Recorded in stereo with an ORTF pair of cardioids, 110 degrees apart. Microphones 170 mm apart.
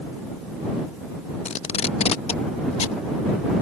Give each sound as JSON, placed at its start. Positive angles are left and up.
{"t": 1.4, "sound": "tape being pulled", "azimuth_deg": 40}